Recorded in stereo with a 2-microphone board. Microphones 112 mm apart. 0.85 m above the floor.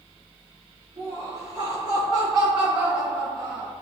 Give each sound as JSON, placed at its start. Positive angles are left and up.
{"t": 1.0, "sound": "laughter", "side_deg": -60, "distance_m": 1.2}